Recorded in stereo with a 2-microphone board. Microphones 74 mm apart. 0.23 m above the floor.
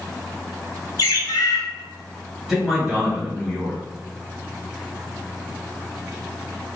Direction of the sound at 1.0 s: 65° left (ahead or behind).